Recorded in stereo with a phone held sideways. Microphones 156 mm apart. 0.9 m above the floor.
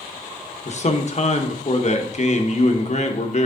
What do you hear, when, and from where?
0.7 s a man speaking: 45° left (ahead or behind), 0.9 m